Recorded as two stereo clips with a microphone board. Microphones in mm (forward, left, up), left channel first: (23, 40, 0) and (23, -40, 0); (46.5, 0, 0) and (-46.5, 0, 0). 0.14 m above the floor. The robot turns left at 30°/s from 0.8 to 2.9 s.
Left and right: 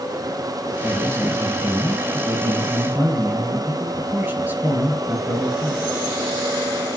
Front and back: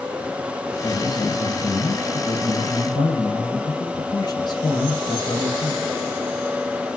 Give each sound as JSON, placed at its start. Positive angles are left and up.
{"t": 0.8, "sound": "a man speaking", "azimuth_deg": 30, "distance_m": 3.0}